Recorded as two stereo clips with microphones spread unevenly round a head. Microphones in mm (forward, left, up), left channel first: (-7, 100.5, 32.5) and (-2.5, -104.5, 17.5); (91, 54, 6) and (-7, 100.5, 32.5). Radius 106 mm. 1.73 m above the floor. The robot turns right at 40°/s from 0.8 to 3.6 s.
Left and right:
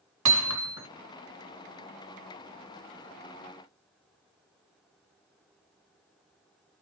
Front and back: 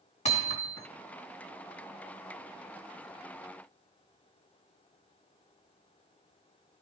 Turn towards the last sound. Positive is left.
turn(degrees=30)